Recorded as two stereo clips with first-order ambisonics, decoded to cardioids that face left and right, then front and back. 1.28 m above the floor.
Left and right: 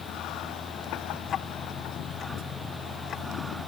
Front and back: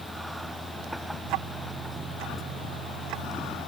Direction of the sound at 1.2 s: 150° left.